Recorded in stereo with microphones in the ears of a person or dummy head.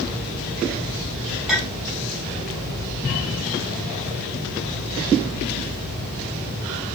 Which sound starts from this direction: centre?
A clink, at 1.5 s.